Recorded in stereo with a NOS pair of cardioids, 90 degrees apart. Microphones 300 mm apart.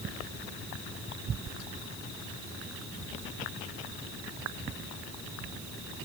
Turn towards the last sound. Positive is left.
No sound to turn to.